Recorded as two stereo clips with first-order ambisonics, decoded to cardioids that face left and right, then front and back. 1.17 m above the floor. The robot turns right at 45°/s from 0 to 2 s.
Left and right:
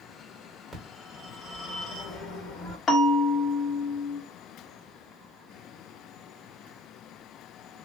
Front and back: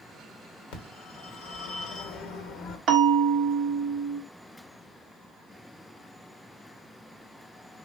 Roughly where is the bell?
Behind left.